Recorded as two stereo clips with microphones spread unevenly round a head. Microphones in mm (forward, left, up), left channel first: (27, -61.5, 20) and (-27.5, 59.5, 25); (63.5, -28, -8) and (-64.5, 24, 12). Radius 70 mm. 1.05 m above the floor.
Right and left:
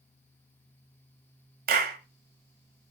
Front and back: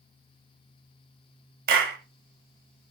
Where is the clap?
130° left, 2 m.